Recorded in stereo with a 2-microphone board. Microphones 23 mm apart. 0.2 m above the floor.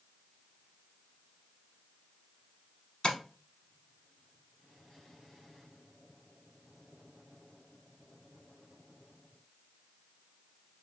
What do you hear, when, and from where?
3.0 s tapping: 45° left (ahead or behind), 0.8 m